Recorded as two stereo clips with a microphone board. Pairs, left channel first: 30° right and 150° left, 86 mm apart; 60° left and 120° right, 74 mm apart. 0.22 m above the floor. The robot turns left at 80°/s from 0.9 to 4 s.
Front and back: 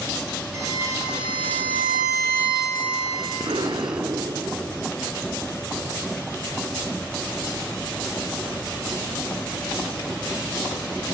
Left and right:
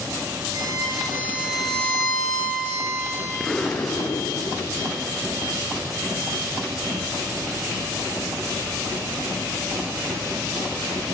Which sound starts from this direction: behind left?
An explosion, at 3.4 s.